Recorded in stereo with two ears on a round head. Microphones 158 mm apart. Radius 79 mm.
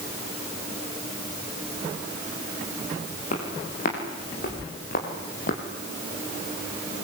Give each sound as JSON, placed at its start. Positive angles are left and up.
{"t": 3.3, "sound": "footsteps", "side_deg": 50, "distance_m": 7.5}